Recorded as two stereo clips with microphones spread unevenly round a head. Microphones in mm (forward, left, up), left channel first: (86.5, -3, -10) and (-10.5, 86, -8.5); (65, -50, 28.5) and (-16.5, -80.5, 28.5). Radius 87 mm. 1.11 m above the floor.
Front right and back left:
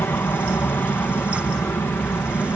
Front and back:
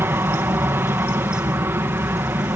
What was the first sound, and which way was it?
An aircraft, 115° right.